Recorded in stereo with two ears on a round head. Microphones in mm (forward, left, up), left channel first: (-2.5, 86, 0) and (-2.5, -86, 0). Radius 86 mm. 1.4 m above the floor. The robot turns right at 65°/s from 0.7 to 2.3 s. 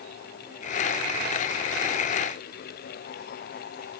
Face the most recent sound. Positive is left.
No sound to turn to.